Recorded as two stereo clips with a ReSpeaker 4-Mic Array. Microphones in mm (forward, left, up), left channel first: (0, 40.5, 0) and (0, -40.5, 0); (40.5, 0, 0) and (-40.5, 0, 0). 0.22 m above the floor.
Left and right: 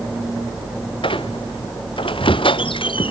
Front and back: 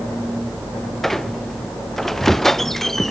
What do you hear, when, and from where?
1.0 s a squeak: 85° left